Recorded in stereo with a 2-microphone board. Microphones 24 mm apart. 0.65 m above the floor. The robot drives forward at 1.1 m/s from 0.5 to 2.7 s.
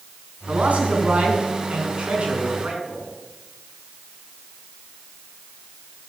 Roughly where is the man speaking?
Right.